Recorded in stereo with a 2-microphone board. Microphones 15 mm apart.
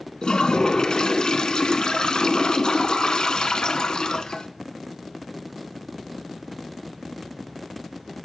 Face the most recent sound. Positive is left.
turn(degrees=70)  # may be behind; listen again after turning